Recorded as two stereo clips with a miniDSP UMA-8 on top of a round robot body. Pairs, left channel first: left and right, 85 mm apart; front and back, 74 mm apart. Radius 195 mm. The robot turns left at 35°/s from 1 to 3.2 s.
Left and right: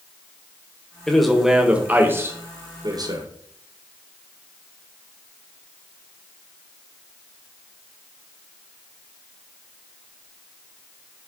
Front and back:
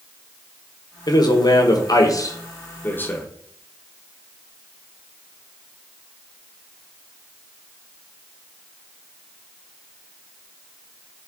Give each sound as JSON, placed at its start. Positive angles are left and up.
{"t": 1.1, "sound": "a man speaking", "azimuth_deg": 5, "distance_m": 1.8}